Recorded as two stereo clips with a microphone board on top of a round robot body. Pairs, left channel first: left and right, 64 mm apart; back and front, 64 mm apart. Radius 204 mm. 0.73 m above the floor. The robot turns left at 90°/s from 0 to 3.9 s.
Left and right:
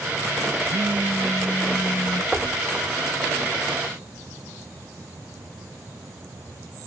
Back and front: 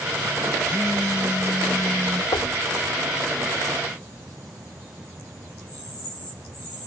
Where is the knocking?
170° right; by 2.6 s 165° left.